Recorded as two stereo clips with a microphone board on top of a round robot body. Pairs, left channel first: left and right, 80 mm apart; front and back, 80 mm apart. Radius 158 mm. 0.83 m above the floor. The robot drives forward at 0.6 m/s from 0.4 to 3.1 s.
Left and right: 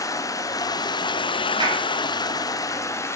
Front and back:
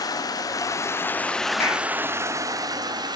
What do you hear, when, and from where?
0.0 s running water: 45° left, 0.9 m; by 3.2 s 145° left, 1.1 m
1.6 s a clap: 60° right, 3 m